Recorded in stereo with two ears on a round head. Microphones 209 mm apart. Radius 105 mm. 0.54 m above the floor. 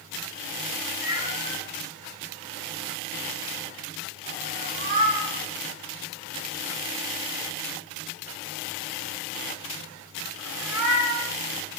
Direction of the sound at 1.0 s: 15° right (ahead or behind).